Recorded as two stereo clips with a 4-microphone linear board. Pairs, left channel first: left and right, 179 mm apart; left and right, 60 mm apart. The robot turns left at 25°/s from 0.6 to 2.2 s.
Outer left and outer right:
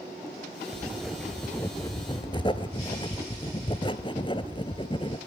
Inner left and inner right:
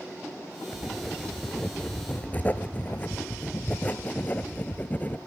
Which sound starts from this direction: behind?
Writing, at 0.7 s.